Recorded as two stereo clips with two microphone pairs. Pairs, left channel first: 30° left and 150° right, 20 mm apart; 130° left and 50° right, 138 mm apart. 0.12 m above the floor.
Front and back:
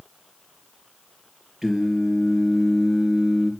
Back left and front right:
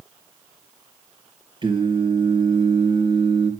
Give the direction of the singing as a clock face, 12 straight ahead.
3 o'clock.